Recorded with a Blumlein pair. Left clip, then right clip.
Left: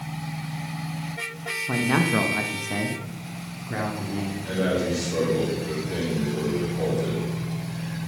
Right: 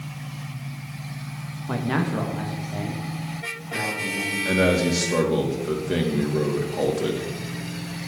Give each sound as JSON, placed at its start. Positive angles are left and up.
{"t": 1.7, "sound": "a man speaking", "azimuth_deg": -5, "distance_m": 1.5}
{"t": 4.5, "sound": "a man speaking", "azimuth_deg": -30, "distance_m": 3.0}